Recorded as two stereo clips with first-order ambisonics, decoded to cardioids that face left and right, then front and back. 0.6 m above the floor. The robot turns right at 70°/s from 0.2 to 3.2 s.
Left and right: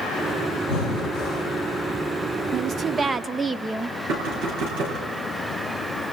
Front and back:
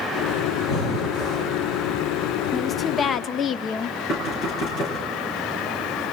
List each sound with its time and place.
0.7 s breathing: 95° left, 3.5 m; by 1.5 s 150° left, 3.5 m
2.5 s a woman speaking: 65° right, 0.6 m; by 4.0 s 15° right, 0.6 m
4.1 s knocking: 55° right, 6.5 m